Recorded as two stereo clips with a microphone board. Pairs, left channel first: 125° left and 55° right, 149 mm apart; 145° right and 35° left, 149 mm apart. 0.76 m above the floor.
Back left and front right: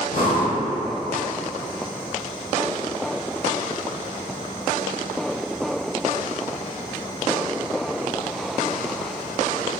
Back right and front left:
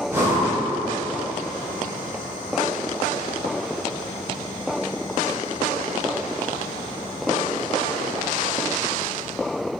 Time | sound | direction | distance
0.1 | breathing | 110° left | 0.8 m